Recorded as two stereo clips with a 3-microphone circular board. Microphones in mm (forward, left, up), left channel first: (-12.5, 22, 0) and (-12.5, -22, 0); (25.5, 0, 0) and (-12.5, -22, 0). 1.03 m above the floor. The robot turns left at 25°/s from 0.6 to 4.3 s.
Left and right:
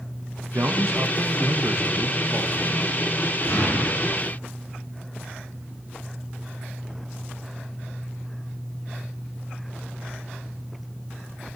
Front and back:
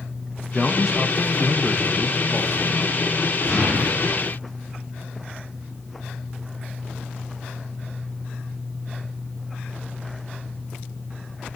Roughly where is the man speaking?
Ahead right.